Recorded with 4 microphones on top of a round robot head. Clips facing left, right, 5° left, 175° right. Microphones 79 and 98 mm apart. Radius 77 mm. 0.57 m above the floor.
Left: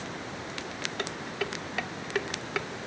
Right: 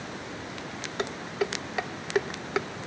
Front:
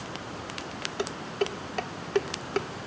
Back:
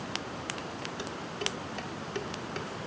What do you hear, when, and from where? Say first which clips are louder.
1.0 s dishes clattering: right 6 dB, front 10 dB; 25° right, 0.8 m